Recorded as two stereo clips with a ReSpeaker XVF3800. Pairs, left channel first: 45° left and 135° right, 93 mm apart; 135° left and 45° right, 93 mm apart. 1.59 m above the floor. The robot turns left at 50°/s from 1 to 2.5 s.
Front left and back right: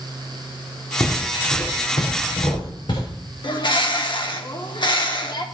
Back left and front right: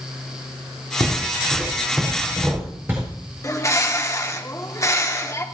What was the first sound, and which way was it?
Footsteps, 95° left.